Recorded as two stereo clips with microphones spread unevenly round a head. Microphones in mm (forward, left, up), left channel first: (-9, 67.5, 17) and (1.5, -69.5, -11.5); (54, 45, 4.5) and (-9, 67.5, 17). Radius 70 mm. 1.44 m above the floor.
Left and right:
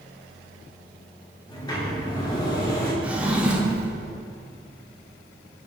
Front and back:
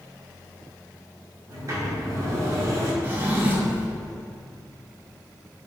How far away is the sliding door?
About 1.6 m.